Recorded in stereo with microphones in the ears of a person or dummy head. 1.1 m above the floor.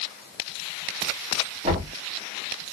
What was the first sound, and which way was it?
Knocking, 30° right (ahead or behind).